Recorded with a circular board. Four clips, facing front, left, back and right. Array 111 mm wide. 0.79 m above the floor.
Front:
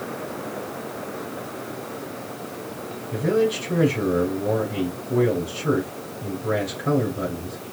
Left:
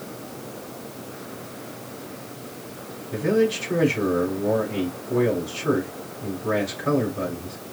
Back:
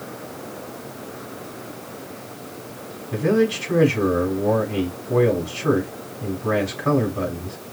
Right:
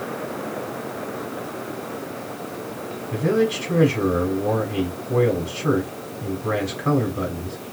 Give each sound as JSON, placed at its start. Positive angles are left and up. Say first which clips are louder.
{"t": 3.1, "sound": "a man speaking", "louder": "even, back 2 dB", "azimuth_deg": -150, "distance_m": 3.0}